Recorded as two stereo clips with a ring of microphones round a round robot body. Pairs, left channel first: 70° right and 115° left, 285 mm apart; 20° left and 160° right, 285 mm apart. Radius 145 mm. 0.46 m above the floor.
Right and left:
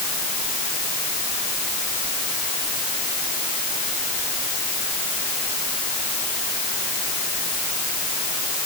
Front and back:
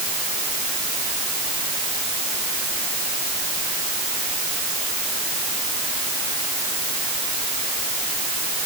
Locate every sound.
Only background noise.